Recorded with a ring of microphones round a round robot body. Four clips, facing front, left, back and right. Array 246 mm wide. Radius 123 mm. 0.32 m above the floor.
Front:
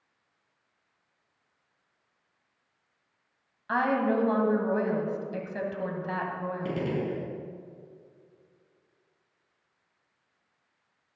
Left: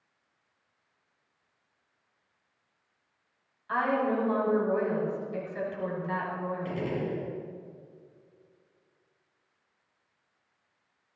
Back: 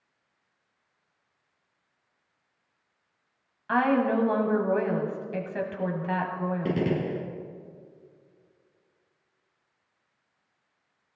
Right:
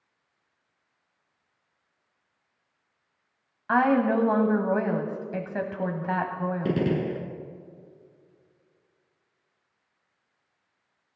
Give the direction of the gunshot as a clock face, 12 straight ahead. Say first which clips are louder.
Right 9 dB, back 3 dB; 4 o'clock.